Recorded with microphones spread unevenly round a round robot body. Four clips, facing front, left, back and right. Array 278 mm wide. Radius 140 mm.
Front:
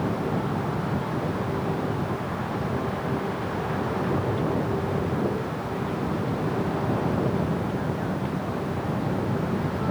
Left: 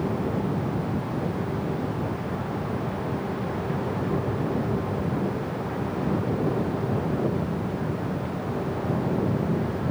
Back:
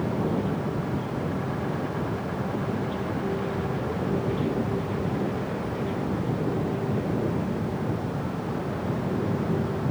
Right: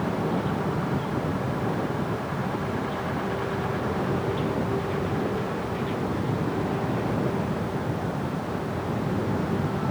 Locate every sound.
Only background noise.